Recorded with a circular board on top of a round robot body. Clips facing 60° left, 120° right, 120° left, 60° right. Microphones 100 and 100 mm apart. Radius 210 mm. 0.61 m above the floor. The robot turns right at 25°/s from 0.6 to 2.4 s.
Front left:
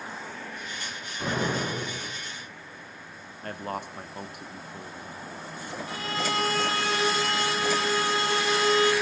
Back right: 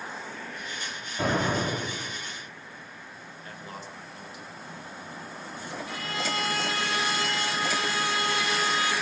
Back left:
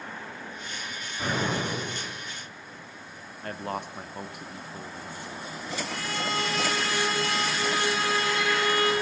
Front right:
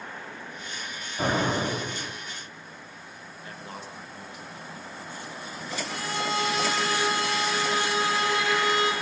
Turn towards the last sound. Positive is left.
turn(degrees=0)